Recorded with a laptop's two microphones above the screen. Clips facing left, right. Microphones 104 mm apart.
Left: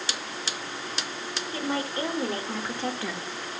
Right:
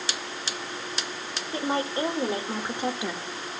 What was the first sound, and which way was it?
A woman speaking, 25° right (ahead or behind).